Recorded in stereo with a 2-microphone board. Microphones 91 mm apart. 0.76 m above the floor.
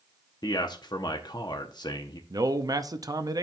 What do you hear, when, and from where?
0.4 s a man speaking: 50° left (ahead or behind), 0.8 m
2.3 s a man speaking: 40° right (ahead or behind), 0.7 m